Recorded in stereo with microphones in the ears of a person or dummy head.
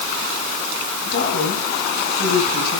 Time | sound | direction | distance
1.1 | a woman speaking | 55° left (ahead or behind) | 7 m